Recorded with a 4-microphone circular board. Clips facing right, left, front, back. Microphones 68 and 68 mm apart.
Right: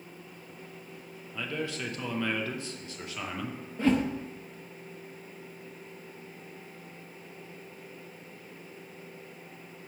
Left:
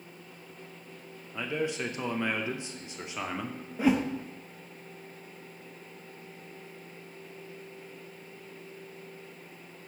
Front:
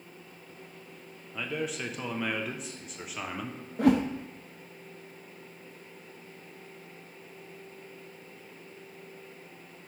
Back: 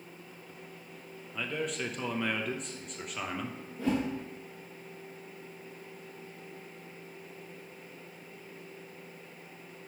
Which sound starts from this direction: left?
A man speaking, at 1.3 s.